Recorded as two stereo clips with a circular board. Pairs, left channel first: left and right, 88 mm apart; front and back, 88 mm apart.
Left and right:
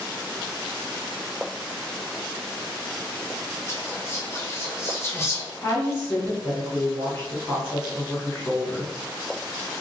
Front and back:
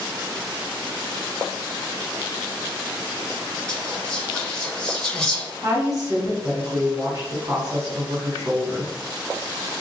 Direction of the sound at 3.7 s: 70° left.